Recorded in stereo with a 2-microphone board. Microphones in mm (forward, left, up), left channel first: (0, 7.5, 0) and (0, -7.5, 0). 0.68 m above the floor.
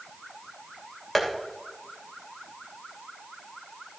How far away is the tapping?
About 3 m.